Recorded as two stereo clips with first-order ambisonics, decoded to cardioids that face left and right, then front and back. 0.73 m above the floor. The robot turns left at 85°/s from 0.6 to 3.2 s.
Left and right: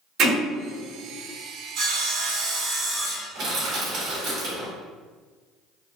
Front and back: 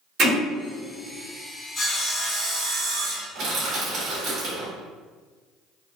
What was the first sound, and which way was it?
Hammering, 135° right.